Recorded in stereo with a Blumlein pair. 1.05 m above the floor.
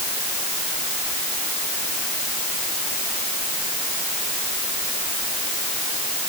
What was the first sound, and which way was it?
Only background noise.